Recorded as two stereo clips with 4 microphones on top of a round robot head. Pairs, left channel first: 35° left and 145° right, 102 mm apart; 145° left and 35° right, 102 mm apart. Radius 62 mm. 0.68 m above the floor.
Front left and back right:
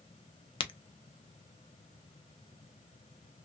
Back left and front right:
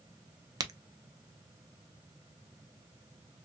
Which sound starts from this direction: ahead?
A crack, at 0.6 s.